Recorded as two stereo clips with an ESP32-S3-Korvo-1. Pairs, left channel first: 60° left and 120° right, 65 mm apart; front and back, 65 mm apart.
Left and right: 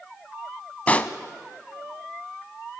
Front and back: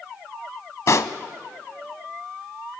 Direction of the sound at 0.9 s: Straight ahead.